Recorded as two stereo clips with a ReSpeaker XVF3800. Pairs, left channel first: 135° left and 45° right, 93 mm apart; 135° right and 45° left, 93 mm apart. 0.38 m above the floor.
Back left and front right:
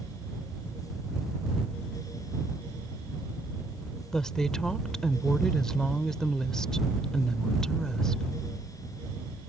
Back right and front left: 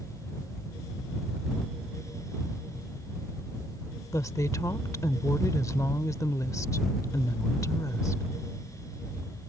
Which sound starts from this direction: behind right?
A woman speaking, at 4.1 s.